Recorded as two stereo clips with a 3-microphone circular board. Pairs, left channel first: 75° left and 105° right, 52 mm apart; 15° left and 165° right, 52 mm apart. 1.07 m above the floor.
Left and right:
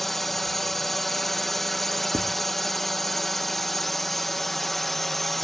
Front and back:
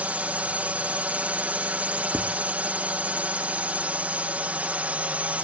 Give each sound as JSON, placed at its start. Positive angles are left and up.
{"t": 0.0, "sound": "a drone", "azimuth_deg": 155}
{"t": 2.1, "sound": "writing", "azimuth_deg": -125}